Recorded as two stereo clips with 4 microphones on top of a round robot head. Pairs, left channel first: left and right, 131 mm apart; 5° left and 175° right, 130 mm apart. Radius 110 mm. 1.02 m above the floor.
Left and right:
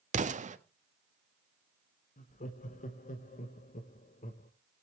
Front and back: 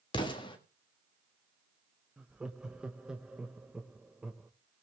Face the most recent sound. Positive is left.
turn(degrees=100)